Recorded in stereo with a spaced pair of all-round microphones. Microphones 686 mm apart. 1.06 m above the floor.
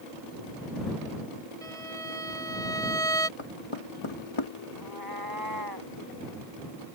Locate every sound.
1.6 s a violin: 45° right (ahead or behind)
3.4 s knocking: 45° left (ahead or behind)
4.8 s a cat meowing: 30° right (ahead or behind)